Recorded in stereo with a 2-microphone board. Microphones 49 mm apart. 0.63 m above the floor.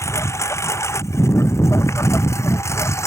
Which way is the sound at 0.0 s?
85° left.